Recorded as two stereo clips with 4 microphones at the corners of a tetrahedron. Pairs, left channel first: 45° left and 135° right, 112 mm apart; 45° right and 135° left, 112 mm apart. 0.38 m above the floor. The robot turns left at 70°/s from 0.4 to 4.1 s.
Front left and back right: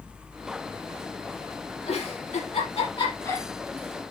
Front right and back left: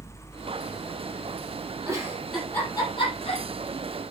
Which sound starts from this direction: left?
A giggle, at 1.9 s.